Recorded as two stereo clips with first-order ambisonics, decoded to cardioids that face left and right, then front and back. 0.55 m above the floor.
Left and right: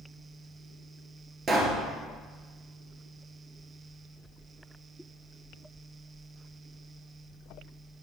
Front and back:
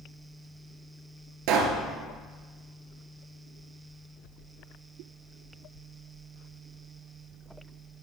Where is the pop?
160° right, 1.5 m.